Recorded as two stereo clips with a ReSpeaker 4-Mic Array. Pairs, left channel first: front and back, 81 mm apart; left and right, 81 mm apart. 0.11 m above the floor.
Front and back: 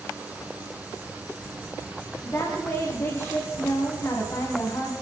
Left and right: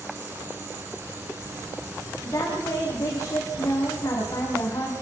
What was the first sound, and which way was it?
A woman speaking, 50° left.